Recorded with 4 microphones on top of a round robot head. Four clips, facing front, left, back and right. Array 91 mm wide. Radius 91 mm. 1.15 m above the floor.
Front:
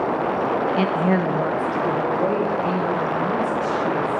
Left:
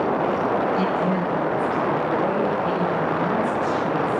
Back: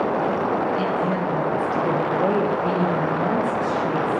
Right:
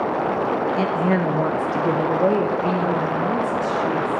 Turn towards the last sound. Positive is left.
turn(degrees=-135)